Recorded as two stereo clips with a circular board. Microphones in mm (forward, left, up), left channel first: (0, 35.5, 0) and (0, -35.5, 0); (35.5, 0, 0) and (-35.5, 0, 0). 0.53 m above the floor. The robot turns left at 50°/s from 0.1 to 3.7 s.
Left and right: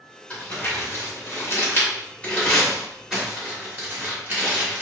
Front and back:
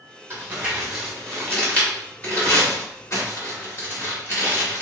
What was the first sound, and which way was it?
Crumpling, 130° left.